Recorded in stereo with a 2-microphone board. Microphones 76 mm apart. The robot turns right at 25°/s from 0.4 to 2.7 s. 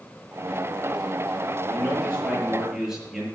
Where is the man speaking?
20° left (ahead or behind), 6 m; by 3.3 s 5° right (ahead or behind), 6 m.